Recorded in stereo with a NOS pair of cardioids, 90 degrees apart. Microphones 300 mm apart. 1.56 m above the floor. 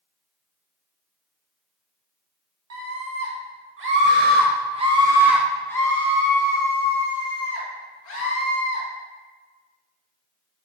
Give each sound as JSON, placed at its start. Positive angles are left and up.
{"t": 2.7, "sound": "a scream", "azimuth_deg": -60, "distance_m": 1.8}